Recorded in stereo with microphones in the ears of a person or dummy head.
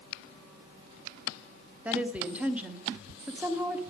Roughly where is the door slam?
No door slam in this recording.